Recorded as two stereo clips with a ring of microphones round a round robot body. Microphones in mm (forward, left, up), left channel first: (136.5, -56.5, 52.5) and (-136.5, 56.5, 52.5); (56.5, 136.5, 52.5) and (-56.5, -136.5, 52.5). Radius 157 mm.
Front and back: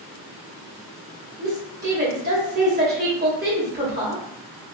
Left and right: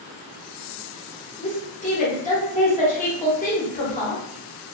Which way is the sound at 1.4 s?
120° left.